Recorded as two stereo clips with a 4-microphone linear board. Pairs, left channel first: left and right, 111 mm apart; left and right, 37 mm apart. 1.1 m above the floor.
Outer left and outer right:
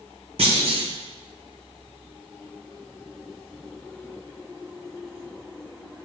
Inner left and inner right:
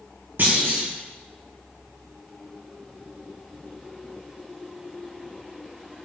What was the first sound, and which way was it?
A clunk, 60° right (ahead or behind).